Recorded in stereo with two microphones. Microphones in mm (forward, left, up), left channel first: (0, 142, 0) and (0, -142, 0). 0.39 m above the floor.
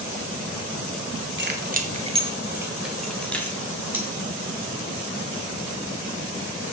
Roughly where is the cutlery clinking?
Centre.